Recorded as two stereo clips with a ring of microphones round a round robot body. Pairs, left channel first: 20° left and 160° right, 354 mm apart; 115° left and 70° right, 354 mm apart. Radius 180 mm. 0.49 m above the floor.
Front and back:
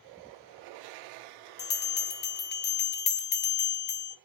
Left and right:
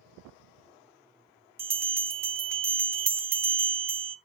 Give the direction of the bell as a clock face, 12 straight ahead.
12 o'clock.